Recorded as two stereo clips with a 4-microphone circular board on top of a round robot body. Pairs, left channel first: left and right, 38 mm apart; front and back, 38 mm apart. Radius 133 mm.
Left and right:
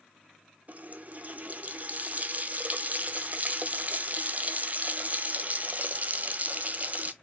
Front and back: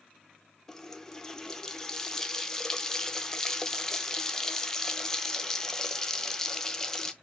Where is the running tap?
70° right, 0.6 m.